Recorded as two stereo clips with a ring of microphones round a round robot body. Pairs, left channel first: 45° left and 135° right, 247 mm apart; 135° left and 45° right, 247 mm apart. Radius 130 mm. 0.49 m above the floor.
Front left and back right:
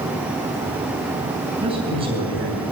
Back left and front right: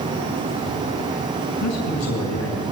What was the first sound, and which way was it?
A man speaking, 155° left.